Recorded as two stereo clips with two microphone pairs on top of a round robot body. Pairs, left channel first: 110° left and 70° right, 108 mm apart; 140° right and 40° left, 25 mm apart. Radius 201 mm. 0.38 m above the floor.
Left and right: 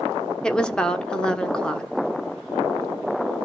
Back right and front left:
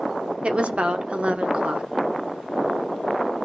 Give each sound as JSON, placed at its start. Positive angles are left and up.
{"t": 0.4, "sound": "a woman speaking", "azimuth_deg": 30, "distance_m": 1.8}